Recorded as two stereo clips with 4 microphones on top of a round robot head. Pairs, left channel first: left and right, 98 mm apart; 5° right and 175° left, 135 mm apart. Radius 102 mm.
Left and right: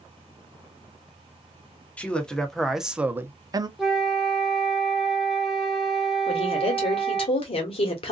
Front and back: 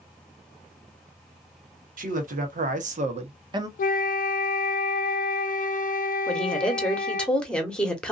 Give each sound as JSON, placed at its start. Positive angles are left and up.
{"t": 2.0, "sound": "a man speaking", "azimuth_deg": 165, "distance_m": 1.2}
{"t": 3.8, "sound": "a flute", "azimuth_deg": -5, "distance_m": 0.5}
{"t": 6.3, "sound": "a woman speaking", "azimuth_deg": 80, "distance_m": 1.3}